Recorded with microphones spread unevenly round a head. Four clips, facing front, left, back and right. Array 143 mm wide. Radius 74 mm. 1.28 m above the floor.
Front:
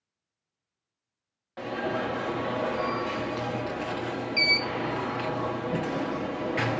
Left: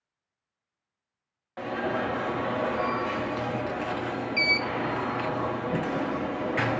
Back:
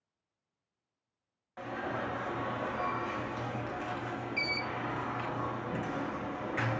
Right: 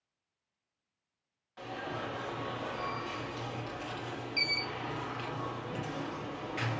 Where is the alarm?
65° left, 1.4 m.